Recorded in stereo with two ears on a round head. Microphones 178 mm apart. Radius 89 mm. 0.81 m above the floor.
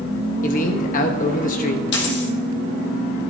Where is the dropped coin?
60° left (ahead or behind), 3 m.